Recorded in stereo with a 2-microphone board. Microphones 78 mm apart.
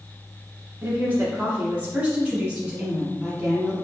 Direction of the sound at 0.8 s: 25° right (ahead or behind).